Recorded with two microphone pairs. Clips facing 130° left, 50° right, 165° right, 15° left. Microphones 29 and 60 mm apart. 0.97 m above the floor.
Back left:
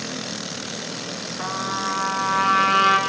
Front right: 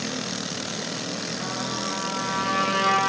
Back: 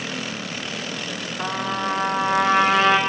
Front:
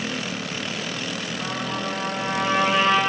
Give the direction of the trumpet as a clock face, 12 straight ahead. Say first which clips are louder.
Back left 7 dB, back 5 dB; 6 o'clock.